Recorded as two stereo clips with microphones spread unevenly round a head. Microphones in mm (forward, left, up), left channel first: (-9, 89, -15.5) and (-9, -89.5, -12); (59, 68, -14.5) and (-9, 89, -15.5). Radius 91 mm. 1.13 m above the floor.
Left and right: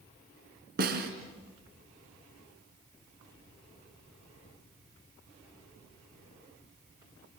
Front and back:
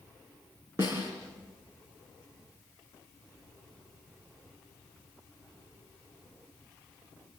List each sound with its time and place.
0.8 s a snare drum: 125° right, 4 m